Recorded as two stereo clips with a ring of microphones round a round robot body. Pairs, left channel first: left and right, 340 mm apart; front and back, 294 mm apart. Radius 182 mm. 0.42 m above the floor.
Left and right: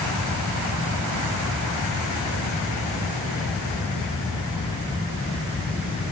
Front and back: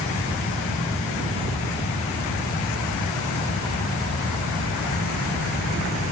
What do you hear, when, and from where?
Only background noise.